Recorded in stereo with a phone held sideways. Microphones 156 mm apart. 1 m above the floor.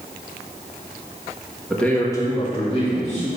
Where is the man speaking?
Centre (ahead or behind), 1.7 m; by 3.3 s 45° left (ahead or behind), 3 m.